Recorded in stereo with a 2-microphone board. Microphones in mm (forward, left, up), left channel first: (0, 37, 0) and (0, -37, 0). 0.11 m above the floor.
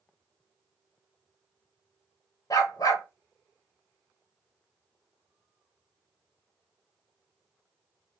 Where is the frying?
No frying in this recording.